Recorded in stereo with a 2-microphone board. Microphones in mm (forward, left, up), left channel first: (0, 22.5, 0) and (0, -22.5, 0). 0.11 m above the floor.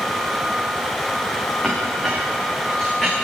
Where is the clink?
15° left (ahead or behind), 9.5 m.